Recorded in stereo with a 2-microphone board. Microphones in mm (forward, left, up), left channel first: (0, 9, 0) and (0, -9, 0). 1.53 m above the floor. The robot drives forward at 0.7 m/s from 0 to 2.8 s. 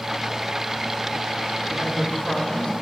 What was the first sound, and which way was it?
A woman speaking, 65° left (ahead or behind).